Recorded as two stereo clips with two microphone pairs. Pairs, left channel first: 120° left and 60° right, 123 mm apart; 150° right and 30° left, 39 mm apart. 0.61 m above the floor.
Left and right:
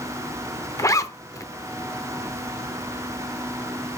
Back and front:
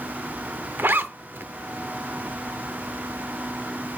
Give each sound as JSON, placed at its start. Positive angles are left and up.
{"t": 0.8, "sound": "a zipper", "azimuth_deg": 60, "distance_m": 0.7}